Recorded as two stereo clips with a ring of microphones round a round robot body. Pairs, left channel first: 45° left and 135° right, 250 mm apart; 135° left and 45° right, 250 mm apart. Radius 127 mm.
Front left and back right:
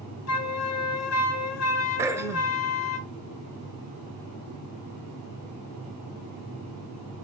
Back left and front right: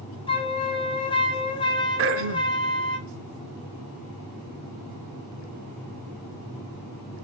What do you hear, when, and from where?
0.3 s a flute: 65° left, 1.7 m
2.0 s throat clearing: 60° right, 0.8 m